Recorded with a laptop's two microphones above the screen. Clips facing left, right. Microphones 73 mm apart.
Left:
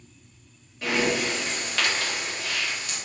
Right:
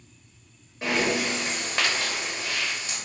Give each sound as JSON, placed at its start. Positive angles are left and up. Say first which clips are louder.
{"t": 0.8, "sound": "breathing", "louder": "even", "side_deg": -25, "distance_m": 1.0}